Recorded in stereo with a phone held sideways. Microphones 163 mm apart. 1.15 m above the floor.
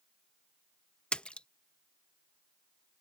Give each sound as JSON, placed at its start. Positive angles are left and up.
{"t": 1.1, "sound": "a splash", "side_deg": 5}